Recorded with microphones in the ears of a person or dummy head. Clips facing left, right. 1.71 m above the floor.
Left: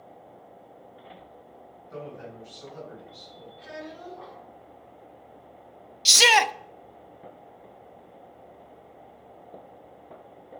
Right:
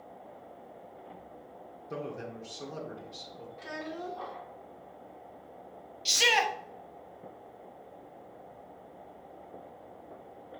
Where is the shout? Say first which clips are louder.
Left 7 dB; 65° left (ahead or behind), 0.5 m.